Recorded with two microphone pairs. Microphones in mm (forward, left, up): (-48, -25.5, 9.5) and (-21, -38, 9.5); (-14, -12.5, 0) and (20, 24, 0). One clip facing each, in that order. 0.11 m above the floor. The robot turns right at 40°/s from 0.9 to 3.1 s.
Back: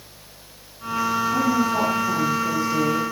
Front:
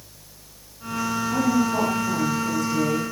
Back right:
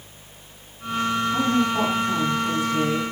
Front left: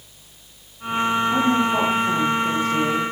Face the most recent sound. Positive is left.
turn(degrees=115)